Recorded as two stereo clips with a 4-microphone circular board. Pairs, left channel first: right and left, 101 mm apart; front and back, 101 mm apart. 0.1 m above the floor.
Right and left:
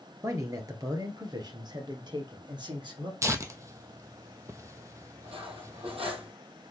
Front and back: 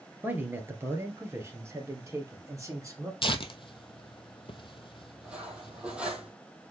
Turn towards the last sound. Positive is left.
turn(degrees=100)